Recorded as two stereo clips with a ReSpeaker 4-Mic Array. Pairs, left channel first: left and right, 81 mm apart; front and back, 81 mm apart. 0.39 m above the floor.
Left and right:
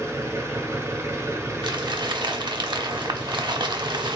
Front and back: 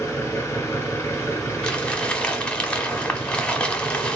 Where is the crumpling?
80° right, 1.0 m.